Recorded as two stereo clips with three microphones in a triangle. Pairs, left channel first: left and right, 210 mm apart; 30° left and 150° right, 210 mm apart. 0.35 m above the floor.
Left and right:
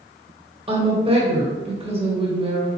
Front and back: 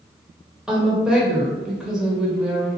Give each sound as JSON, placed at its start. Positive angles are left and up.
{"t": 0.7, "sound": "a woman speaking", "azimuth_deg": -70, "distance_m": 1.1}